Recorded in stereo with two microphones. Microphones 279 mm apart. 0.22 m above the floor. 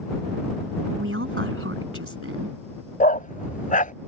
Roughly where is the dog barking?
Left.